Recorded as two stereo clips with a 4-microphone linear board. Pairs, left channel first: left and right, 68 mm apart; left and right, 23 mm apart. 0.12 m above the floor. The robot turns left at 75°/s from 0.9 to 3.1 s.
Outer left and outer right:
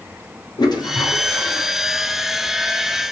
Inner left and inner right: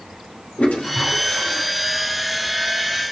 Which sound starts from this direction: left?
A toilet flushing, at 0.6 s.